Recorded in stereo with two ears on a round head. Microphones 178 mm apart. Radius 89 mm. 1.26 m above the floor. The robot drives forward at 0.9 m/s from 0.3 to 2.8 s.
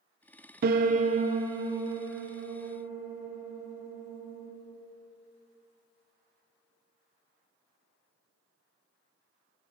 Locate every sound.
0.6 s a piano: 50° right (ahead or behind), 0.6 m; by 4.5 s 10° right (ahead or behind), 2 m